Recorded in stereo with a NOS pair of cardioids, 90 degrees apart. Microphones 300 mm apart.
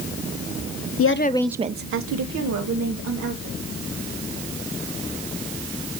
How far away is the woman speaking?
About 0.8 m.